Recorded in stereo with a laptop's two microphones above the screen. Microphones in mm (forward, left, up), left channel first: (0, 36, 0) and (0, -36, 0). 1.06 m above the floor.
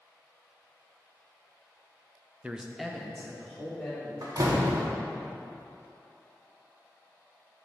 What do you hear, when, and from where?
2.4 s a man speaking: 20° right (ahead or behind), 0.5 m; by 4.1 s 10° left (ahead or behind), 3 m
4.2 s a door slam: 60° right (ahead or behind), 0.9 m